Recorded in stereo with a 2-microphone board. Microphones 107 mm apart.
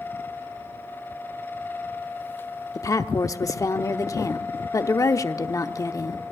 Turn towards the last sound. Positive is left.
turn(degrees=30)  # may be behind; listen again after turning